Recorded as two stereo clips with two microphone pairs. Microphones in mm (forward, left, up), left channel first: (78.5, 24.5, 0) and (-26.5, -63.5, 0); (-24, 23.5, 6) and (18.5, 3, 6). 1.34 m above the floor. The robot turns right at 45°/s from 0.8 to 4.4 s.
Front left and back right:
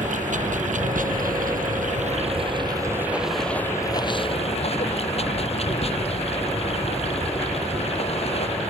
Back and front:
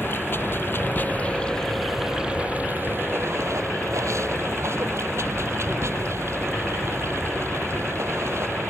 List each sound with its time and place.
0.0 s running water: 165° right; by 8.7 s straight ahead